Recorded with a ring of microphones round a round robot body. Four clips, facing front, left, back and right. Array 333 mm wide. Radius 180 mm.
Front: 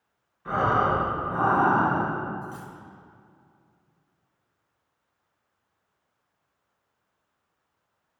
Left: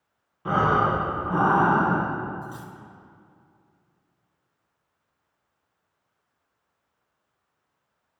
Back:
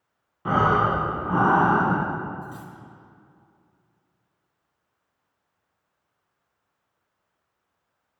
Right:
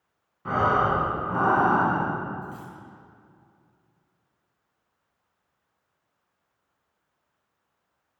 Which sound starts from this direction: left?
Cutlery clinking, at 2.4 s.